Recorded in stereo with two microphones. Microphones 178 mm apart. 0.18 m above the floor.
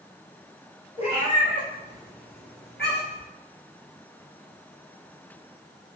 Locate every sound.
1.0 s a cat meowing: 45° left (ahead or behind), 1.3 m; by 3.3 s 70° left (ahead or behind), 1.6 m